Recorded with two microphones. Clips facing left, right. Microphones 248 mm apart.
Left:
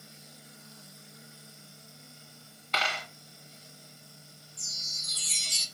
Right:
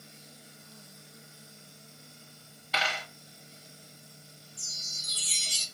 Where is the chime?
35° right (ahead or behind), 0.7 m.